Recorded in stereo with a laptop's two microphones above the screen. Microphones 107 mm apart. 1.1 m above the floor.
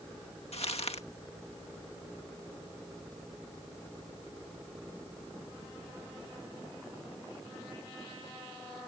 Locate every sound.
0.5 s crumpling: 75° left (ahead or behind)